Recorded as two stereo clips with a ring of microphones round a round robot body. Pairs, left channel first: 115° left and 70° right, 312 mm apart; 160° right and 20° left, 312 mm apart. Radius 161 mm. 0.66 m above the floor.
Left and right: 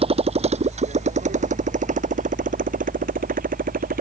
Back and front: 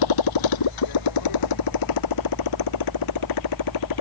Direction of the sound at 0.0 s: 140° right.